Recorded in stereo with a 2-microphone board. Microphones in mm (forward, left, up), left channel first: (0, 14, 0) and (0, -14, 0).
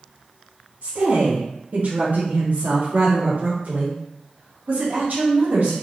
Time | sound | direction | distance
0.8 | a woman speaking | 80° right | 1.9 m